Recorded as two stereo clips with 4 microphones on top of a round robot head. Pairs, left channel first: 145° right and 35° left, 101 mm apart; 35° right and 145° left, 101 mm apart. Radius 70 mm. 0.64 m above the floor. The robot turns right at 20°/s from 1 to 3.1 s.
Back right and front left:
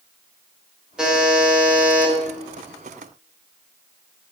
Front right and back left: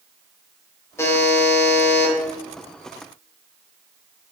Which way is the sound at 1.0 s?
40° right.